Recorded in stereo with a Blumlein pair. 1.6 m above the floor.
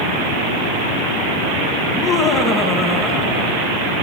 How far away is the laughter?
About 2 m.